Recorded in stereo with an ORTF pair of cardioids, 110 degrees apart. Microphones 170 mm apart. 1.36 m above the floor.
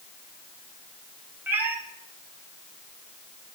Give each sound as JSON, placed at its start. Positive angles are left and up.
{"t": 1.5, "sound": "a cat meowing", "azimuth_deg": -10, "distance_m": 3.0}